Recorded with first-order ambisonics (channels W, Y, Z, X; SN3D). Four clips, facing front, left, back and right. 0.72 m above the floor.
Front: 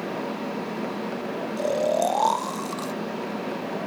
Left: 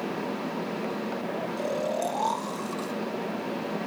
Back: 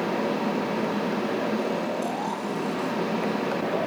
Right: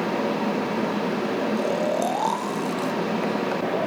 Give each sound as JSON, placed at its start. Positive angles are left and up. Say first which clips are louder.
{"t": 1.6, "sound": "snoring", "louder": "right 2 dB, front 4 dB", "azimuth_deg": -20, "distance_m": 0.6}